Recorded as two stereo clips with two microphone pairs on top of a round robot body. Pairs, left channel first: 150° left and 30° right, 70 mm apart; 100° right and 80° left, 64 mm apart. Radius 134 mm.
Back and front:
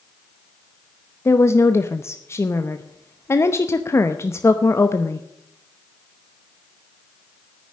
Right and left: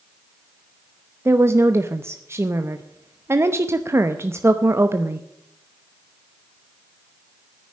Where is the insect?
I don't hear an insect.